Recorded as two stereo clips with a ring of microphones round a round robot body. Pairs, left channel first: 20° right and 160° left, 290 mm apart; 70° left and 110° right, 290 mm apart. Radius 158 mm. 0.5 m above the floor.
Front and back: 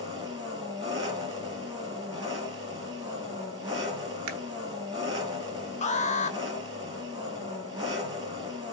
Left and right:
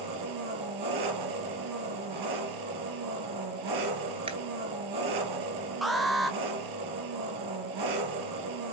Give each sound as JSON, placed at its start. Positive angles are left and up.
{"t": 0.0, "sound": "an engine running", "azimuth_deg": -125, "distance_m": 4.0}
{"t": 4.3, "sound": "a camera shutter", "azimuth_deg": 180, "distance_m": 1.5}
{"t": 5.8, "sound": "an alarm", "azimuth_deg": -25, "distance_m": 1.4}